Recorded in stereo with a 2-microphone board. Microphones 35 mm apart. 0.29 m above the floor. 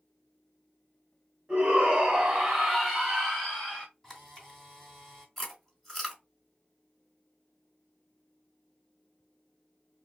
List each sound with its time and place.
1.5 s a shout: 15° right (ahead or behind), 2 m; by 3.9 s 25° left (ahead or behind), 1.7 m
4.0 s a camera shutter: 5° left (ahead or behind), 3 m
5.4 s chewing: 5° left (ahead or behind), 2.5 m